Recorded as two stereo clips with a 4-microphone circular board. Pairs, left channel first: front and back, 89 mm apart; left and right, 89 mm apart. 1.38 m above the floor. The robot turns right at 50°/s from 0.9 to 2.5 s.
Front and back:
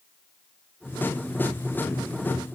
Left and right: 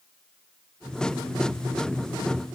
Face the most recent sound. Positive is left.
No sound to turn to.